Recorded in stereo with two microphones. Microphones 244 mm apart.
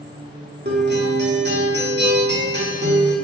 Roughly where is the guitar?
Right.